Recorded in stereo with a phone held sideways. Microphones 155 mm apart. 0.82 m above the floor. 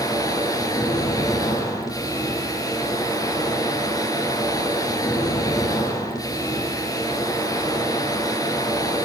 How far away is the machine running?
About 3.5 m.